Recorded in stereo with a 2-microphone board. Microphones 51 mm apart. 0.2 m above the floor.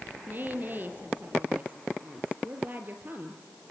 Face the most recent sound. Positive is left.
turn(degrees=-40)  # may be behind; listen again after turning